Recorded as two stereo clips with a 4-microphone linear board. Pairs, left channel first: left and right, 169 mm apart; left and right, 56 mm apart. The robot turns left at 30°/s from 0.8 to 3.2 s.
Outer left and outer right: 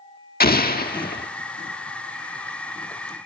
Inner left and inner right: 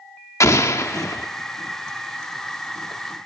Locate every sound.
0.4 s an explosion: 65° left (ahead or behind), 1.2 m